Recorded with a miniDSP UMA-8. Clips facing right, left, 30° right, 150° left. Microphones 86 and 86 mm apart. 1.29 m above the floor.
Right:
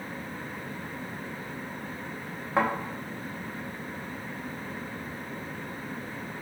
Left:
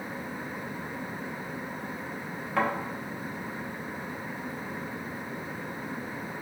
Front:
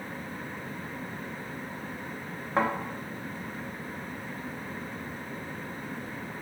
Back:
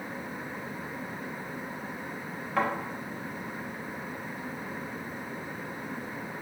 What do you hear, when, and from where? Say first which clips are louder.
2.6 s a thud: right 2 dB, front 2 dB; 60° right, 0.7 m